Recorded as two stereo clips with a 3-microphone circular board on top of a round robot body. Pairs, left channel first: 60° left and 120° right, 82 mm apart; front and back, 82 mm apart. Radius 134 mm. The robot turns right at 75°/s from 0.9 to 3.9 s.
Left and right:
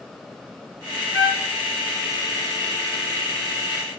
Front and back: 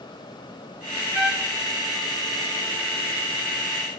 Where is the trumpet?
95° left, 1.2 m; by 1.5 s 120° left, 1.2 m.